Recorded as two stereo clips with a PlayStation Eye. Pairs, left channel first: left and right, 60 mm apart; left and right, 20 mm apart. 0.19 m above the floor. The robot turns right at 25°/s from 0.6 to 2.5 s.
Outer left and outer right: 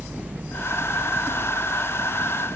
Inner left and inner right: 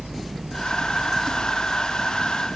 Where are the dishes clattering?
No dishes clattering in this recording.